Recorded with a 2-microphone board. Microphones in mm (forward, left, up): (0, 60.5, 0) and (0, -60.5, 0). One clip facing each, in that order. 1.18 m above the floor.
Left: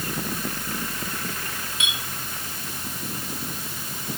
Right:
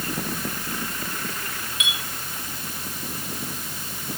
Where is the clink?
35° left (ahead or behind), 6 m.